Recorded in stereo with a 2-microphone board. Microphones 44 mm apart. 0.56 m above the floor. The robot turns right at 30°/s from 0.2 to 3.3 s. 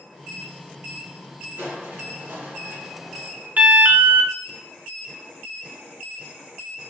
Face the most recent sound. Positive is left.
turn(degrees=-40)  # may be behind; listen again after turning